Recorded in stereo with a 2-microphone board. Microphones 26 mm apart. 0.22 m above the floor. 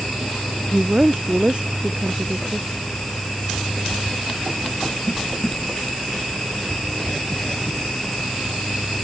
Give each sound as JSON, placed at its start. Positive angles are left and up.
{"t": 0.7, "sound": "a woman speaking", "side_deg": -40}